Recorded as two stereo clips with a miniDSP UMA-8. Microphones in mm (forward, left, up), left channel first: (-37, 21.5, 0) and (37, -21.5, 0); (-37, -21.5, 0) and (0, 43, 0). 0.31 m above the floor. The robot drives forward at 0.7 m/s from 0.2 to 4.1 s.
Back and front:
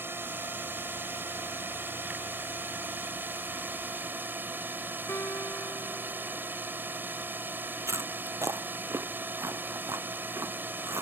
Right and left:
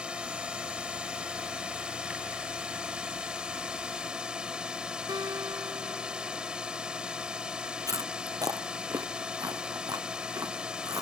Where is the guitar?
90° left.